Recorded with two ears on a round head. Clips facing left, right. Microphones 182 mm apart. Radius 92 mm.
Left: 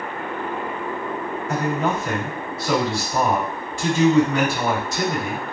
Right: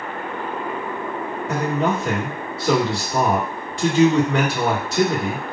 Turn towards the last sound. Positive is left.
turn(degrees=-50)  # may be behind; listen again after turning